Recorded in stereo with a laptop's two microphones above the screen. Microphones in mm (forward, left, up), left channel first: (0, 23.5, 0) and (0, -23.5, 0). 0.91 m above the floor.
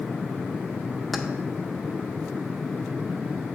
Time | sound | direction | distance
1.1 | keys jangling | centre (ahead or behind) | 0.7 m